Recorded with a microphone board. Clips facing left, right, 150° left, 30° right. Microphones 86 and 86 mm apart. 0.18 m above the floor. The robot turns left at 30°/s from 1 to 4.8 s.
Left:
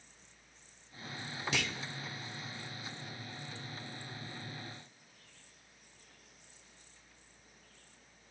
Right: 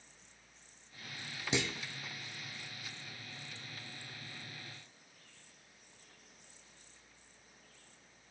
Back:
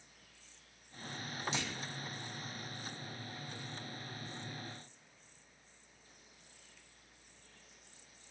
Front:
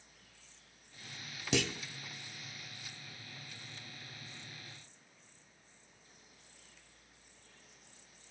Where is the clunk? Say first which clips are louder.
Right 3 dB, front 12 dB; 25° right, 0.6 m; by 1.8 s 30° right, 0.6 m.